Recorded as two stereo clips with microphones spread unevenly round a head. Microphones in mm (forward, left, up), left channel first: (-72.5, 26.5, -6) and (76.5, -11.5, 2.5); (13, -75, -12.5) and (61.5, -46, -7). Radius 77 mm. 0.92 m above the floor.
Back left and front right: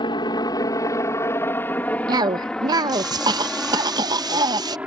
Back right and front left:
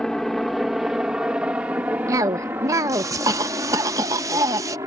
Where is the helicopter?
135° left; by 4.9 s 65° left.